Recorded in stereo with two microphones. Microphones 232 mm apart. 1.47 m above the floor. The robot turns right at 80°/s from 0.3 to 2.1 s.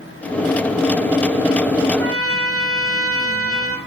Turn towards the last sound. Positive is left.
turn(degrees=-75)  # may be behind; listen again after turning